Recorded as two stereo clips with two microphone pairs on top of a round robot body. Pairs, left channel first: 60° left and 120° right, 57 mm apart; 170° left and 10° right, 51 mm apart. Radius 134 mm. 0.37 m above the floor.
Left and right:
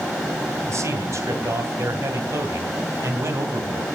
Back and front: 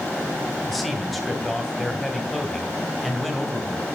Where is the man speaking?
100° right, 2.5 m.